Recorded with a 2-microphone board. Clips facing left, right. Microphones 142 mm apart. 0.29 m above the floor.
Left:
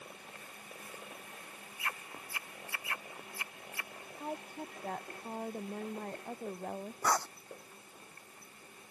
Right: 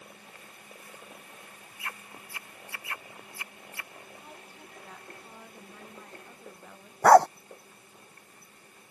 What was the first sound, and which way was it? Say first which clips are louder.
A woman speaking: left 8 dB; 50° left (ahead or behind).